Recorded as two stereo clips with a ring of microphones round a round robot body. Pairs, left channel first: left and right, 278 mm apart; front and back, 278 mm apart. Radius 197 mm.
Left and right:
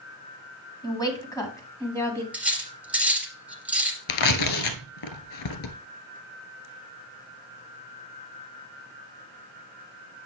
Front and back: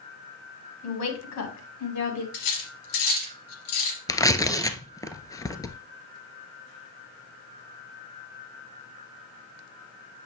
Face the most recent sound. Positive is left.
turn(degrees=80)